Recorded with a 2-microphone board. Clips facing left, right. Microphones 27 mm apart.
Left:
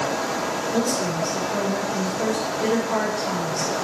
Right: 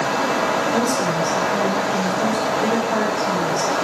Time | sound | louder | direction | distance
0.7 | a woman speaking | right 4 dB | 5° left (ahead or behind) | 6 m